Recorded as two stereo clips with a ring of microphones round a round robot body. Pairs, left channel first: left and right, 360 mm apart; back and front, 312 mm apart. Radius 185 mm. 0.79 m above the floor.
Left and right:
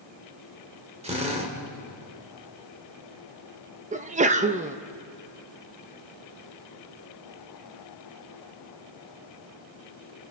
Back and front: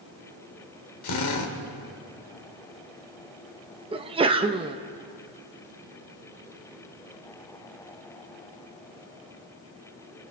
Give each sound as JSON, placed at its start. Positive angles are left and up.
{"t": 1.0, "sound": "a drill", "azimuth_deg": -165, "distance_m": 2.5}
{"t": 3.9, "sound": "a sneeze", "azimuth_deg": -50, "distance_m": 0.9}